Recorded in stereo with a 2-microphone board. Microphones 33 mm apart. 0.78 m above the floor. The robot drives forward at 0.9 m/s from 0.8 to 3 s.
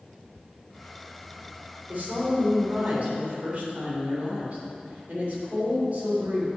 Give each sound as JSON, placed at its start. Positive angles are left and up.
{"t": 1.9, "sound": "a woman speaking", "side_deg": -55, "distance_m": 2.5}